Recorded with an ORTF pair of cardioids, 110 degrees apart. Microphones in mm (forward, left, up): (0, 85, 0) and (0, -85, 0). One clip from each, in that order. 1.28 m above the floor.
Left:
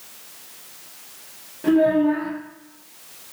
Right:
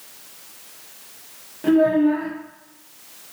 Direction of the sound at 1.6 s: 10° right.